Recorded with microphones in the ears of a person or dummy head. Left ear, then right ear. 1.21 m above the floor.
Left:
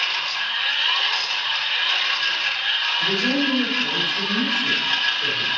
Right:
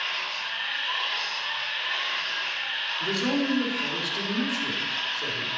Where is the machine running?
70° left (ahead or behind), 1.9 m.